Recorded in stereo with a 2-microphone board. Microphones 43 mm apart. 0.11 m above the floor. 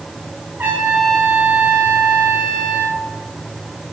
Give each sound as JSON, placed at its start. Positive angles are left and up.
{"t": 0.6, "sound": "a trumpet", "side_deg": -50, "distance_m": 8.5}